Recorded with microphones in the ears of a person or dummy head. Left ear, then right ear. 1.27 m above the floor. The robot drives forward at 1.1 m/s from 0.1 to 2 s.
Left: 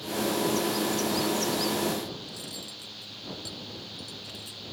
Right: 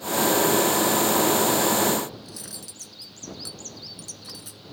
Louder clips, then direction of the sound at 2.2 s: Left 2 dB; 40° right (ahead or behind).